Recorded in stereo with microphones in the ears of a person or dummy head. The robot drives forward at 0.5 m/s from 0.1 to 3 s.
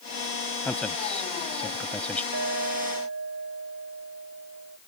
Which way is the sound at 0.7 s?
5° left (ahead or behind).